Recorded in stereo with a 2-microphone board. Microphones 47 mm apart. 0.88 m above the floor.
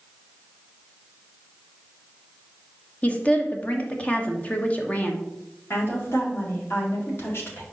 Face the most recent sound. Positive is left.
turn(degrees=55)  # may be behind; listen again after turning